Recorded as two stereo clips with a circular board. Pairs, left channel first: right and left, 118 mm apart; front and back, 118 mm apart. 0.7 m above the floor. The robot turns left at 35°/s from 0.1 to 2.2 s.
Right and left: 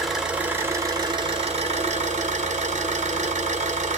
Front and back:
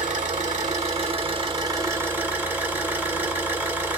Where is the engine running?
175° left, 1.4 m; by 4.0 s 105° left, 1.4 m.